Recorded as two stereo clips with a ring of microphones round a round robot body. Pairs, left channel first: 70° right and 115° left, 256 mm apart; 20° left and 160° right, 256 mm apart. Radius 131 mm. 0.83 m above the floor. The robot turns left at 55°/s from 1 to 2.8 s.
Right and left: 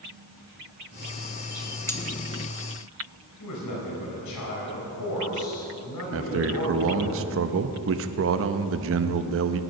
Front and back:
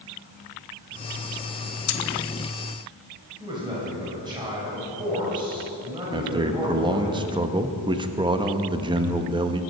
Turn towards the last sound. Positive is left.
turn(degrees=135)